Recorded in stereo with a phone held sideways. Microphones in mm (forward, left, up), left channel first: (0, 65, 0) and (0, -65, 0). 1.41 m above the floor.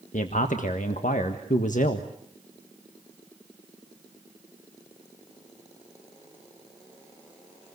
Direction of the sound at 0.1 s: 75° left (ahead or behind).